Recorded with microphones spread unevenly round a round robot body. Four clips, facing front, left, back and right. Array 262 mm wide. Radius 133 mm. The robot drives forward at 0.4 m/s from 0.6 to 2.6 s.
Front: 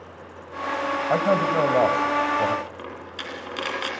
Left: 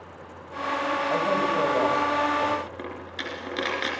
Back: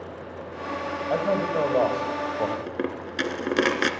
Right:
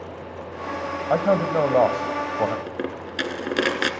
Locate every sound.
1.1 s a man speaking: 55° right, 2.5 m; by 2.6 s 75° right, 2 m
2.7 s a dropped coin: 145° right, 1.9 m